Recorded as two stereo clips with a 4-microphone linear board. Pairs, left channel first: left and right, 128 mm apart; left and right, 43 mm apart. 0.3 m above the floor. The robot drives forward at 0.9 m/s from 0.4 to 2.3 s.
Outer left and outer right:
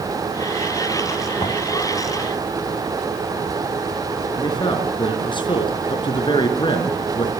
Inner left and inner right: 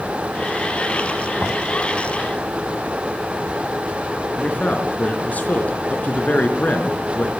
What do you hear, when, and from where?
1.4 s knocking: 50° left (ahead or behind), 1.6 m; by 1.7 s 55° left (ahead or behind), 1.5 m
4.3 s a man speaking: 40° left (ahead or behind), 3.5 m